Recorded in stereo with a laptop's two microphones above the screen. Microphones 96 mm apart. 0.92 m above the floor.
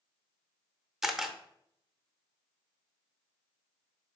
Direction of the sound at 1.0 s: 5° right (ahead or behind).